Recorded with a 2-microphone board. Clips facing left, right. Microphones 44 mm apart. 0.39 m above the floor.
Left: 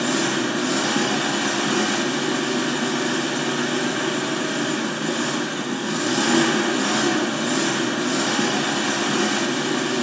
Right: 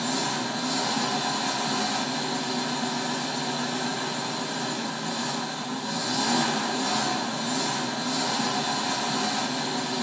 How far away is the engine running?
About 0.9 m.